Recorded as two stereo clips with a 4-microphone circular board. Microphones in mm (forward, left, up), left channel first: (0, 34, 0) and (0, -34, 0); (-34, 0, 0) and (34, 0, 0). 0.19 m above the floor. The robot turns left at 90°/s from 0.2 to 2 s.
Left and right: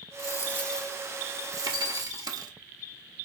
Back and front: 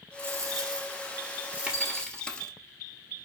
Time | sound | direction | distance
0.2 | a dropped coin | 60° left | 1.4 m
1.7 | a bell | 175° right | 3.5 m